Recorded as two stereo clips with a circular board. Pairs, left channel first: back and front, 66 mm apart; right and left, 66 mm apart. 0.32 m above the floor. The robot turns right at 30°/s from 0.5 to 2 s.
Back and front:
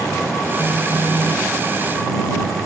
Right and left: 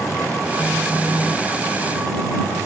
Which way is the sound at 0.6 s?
10° right.